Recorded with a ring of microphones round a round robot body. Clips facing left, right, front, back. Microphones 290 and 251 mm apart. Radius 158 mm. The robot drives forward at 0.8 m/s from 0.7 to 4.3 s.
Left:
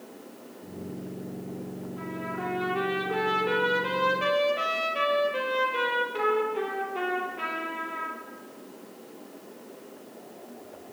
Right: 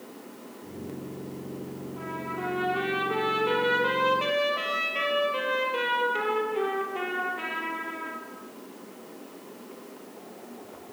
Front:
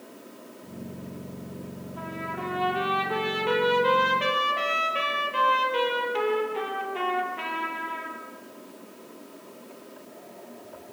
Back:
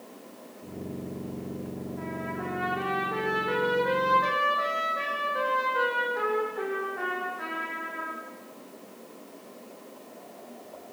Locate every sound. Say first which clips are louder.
2.0 s a trumpet: left 1 dB, back 2 dB; straight ahead, 8.5 m